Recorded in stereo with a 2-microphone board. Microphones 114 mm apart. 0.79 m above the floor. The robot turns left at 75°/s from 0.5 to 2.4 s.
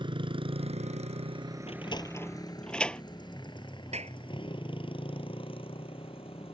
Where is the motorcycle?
50° right (ahead or behind); by 6.5 s 60° left (ahead or behind).